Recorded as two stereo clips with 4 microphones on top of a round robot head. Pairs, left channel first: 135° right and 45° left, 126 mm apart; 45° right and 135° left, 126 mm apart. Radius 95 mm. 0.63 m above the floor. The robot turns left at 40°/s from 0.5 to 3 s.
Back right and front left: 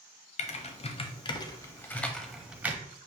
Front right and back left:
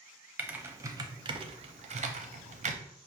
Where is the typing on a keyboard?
150° right, 0.6 m; by 2.8 s 120° left, 0.6 m.